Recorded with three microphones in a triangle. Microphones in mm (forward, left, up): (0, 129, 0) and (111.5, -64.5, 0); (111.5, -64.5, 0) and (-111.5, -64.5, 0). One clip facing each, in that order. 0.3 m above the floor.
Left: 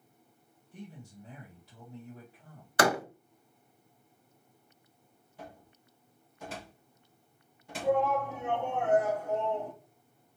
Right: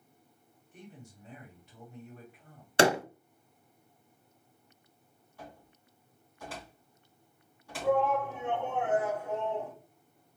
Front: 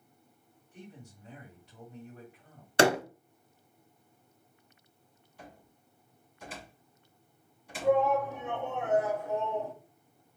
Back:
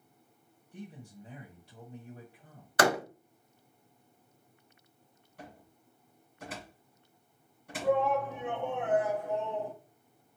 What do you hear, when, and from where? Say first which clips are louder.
0.7 s a man speaking: left 4 dB, back 4 dB; 150° left, 1.8 m
2.8 s a door slam: right 3 dB, front 3 dB; 30° right, 0.6 m
5.4 s a cupboard door: left 1 dB, back 2 dB; 175° right, 2.5 m
7.8 s a shout: even, front 2 dB; 160° left, 2.5 m